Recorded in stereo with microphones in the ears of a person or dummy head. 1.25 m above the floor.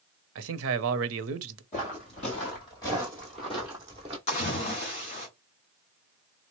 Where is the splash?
35° left (ahead or behind), 1.7 m.